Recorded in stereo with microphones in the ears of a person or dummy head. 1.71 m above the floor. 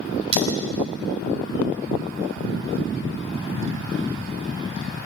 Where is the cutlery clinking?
30° right (ahead or behind), 9 m.